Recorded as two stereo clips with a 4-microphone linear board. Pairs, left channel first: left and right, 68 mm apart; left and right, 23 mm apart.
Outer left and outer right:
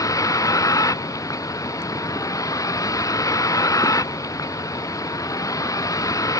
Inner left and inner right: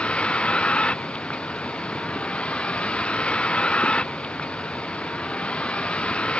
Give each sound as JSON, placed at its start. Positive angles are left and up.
{"t": 0.0, "sound": "a vehicle", "side_deg": 55}